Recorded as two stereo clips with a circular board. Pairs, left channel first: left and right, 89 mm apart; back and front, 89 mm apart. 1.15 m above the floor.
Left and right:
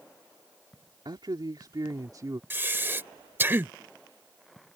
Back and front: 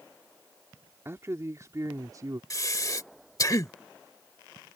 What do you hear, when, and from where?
1.1 s a man speaking: 60° right; by 2.4 s 45° right
2.5 s breathing: 150° right